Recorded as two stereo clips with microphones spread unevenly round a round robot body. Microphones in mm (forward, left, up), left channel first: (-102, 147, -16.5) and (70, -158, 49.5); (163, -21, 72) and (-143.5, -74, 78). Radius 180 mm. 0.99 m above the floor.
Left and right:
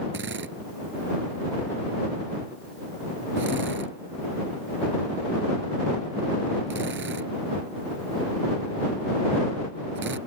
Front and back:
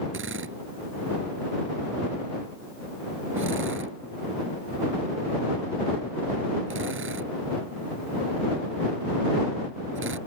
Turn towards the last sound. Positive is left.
turn(degrees=-120)